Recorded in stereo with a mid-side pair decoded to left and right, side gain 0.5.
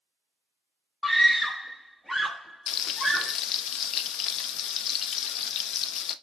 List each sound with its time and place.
1.0 s a scream: 10° left, 0.8 m
2.7 s frying: 65° left, 0.7 m